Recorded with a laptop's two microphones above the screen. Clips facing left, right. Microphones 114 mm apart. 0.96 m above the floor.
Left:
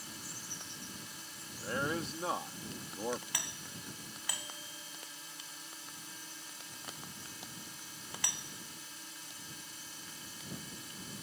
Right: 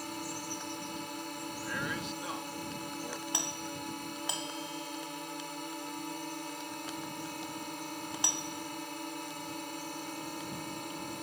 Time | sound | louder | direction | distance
0.0 | a drone | right 11 dB | 65° right (ahead or behind) | ?
1.6 | a man speaking | left 4 dB | 40° left (ahead or behind) | ?
3.3 | a doorbell | right 9 dB | 25° right (ahead or behind) | ?